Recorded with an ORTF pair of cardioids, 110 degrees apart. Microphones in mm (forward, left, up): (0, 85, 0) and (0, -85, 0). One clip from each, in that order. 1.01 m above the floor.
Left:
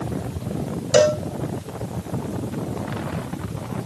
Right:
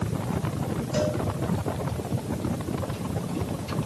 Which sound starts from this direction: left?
A cowbell, at 0.9 s.